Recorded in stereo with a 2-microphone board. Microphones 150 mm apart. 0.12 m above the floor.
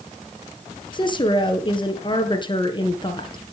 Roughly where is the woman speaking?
Left.